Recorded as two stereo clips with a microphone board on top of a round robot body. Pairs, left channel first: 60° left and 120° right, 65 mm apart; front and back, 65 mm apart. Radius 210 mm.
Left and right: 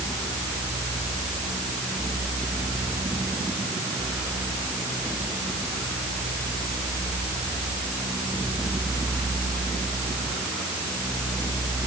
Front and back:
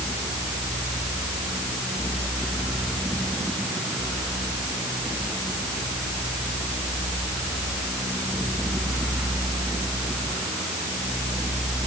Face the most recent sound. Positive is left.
No sound to turn to.